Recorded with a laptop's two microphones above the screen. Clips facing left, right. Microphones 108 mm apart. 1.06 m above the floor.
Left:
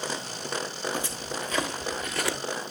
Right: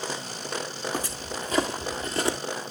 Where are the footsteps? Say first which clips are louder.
Right 1 dB; 40° right (ahead or behind), 1.5 m; by 2.4 s 25° right (ahead or behind), 1.1 m.